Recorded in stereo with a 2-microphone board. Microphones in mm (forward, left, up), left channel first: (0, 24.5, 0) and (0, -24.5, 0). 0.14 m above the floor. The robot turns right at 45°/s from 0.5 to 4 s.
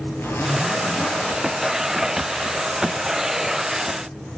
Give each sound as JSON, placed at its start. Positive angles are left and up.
{"t": 0.2, "sound": "a zipper", "azimuth_deg": 115, "distance_m": 3.5}